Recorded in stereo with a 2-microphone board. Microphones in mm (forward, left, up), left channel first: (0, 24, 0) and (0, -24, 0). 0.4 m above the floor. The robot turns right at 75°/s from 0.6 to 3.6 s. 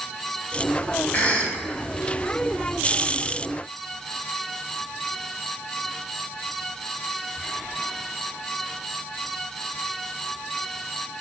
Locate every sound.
1.1 s a cough: 30° left (ahead or behind), 0.9 m